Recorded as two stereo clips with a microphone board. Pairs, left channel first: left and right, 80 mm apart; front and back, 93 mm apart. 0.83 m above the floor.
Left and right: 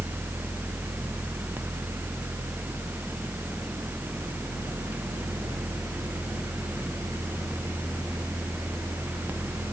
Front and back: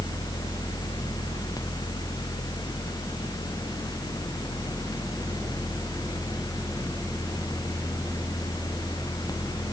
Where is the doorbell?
I don't hear a doorbell.